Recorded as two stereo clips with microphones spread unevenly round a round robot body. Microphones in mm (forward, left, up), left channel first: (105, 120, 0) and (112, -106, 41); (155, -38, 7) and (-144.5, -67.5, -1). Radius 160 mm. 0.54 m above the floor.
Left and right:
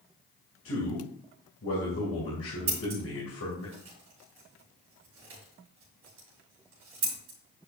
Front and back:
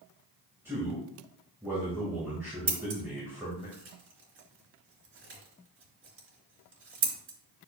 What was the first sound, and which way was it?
A man speaking, 105° left.